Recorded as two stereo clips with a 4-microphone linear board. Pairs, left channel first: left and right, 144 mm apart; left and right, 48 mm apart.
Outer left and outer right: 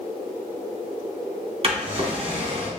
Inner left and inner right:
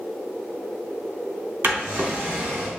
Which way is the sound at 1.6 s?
45° right (ahead or behind).